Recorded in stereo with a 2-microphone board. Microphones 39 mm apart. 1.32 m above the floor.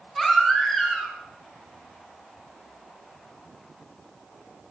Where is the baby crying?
5° left (ahead or behind), 4 m.